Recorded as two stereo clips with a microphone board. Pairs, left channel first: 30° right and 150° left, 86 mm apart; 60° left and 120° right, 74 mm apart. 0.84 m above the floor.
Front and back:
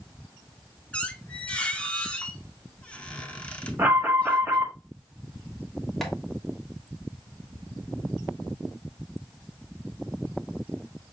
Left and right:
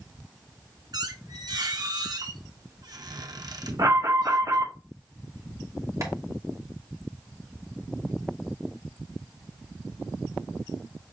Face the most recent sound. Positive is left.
turn(degrees=-120)